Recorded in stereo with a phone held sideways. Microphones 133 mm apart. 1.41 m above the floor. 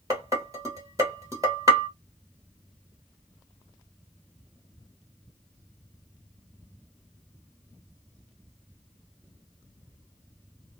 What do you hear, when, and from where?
0.1 s dishes clattering: 25° right (ahead or behind), 1.6 m